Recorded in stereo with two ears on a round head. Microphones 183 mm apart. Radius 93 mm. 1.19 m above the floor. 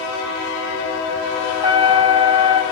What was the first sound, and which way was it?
A trumpet, 15° right (ahead or behind).